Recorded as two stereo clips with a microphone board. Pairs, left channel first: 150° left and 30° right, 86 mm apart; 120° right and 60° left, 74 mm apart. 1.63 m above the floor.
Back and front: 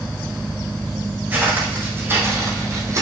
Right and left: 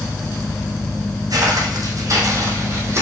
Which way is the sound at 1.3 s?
40° left.